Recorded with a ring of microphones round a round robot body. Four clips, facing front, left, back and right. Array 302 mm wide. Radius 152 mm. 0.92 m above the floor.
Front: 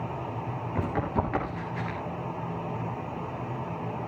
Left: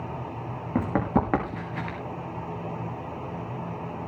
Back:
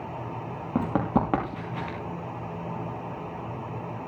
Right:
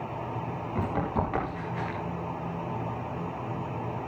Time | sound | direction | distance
0.8 | running footsteps | 140° left | 6.5 m